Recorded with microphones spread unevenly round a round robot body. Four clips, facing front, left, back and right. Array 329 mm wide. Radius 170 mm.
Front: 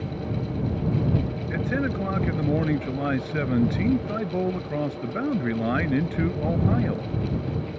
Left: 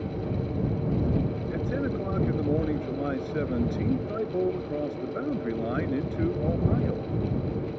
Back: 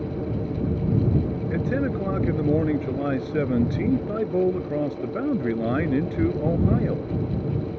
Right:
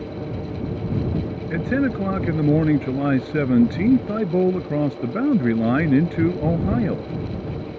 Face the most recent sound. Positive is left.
turn(degrees=-80)